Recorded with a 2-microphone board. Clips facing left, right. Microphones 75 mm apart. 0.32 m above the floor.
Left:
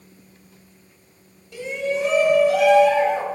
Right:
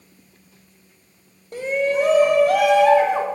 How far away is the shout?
About 2 m.